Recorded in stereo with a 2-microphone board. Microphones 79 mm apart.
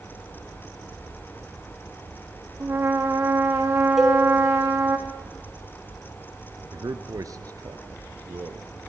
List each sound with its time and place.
2.6 s a trumpet: 35° right (ahead or behind), 3.5 m
4.0 s a cowbell: 5° right (ahead or behind), 4.5 m
6.7 s a man speaking: 55° right (ahead or behind), 1.8 m